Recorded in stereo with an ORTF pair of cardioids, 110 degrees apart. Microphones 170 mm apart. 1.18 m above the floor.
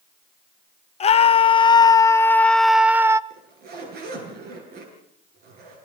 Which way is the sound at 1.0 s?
40° left.